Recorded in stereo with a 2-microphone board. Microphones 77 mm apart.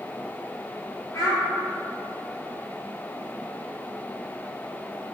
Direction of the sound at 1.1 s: 45° left (ahead or behind).